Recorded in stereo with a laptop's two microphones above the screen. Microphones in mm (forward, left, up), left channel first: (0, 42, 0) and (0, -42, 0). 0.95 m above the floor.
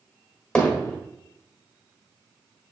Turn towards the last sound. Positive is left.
turn(degrees=10)  # may be behind; listen again after turning